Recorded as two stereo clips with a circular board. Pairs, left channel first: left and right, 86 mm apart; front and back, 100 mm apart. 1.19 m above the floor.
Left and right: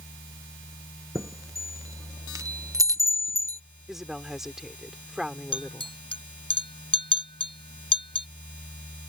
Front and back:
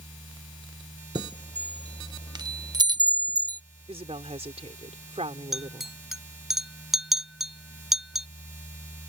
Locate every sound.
1.1 s a chime: 135° right
3.9 s a woman speaking: 175° right
5.5 s a clink: 95° left